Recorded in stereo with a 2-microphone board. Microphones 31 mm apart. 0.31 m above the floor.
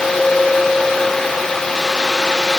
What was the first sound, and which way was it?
Only background noise.